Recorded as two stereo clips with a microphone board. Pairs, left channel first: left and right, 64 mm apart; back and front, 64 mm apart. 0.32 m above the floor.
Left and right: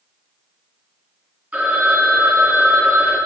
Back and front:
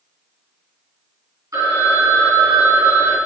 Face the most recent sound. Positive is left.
turn(degrees=-20)